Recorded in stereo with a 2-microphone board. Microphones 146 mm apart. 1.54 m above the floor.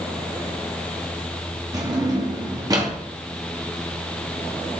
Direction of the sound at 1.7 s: 25° right (ahead or behind).